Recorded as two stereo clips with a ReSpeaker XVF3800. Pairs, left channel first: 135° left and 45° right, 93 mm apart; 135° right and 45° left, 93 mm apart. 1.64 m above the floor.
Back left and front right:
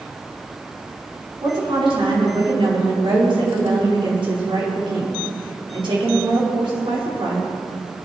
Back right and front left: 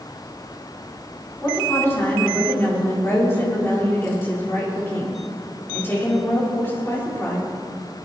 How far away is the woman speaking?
About 5 m.